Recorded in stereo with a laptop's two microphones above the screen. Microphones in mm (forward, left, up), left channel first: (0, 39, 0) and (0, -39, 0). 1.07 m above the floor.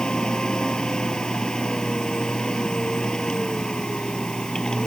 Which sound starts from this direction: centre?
A machine running, at 0.0 s.